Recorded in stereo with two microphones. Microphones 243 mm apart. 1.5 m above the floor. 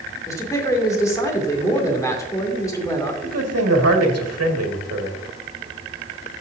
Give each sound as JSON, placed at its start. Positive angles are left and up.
{"t": 0.3, "sound": "a man speaking", "side_deg": 15, "distance_m": 2.0}
{"t": 3.2, "sound": "a man speaking", "side_deg": -90, "distance_m": 1.7}